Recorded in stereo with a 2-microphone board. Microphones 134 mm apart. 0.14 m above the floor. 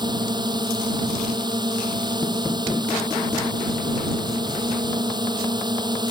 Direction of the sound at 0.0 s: 30° right (ahead or behind).